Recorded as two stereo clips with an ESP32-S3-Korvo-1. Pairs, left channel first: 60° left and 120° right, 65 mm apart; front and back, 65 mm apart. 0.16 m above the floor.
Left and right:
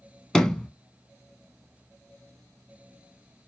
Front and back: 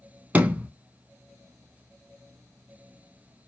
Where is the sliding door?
135° left, 0.5 m.